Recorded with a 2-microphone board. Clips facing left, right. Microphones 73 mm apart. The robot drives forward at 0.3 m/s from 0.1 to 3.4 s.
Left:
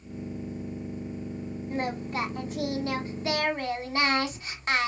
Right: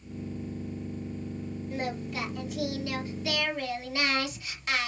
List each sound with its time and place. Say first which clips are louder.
1.7 s singing: left 4 dB; 40° left (ahead or behind), 1.2 m